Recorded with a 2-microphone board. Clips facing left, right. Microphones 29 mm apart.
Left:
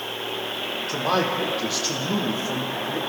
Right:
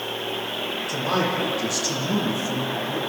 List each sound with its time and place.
0.9 s a man speaking: 30° left (ahead or behind), 6 m; by 3.0 s 25° left (ahead or behind), 4.5 m